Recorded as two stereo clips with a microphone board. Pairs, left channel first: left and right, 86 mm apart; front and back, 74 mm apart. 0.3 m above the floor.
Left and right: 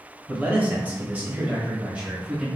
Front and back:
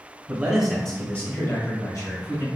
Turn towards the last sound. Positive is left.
turn(degrees=-15)